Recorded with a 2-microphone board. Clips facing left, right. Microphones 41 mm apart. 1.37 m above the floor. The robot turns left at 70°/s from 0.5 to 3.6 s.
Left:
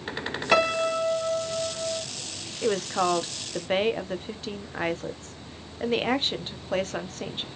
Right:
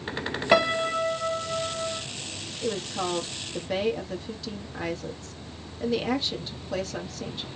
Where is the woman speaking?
110° left, 1.0 m; by 7.5 s 40° left, 1.0 m.